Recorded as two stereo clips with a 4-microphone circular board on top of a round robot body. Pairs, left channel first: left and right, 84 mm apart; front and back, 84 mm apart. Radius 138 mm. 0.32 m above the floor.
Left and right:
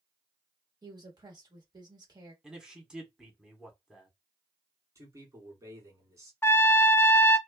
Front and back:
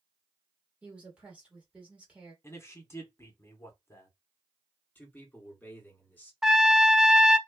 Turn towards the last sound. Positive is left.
turn(degrees=100)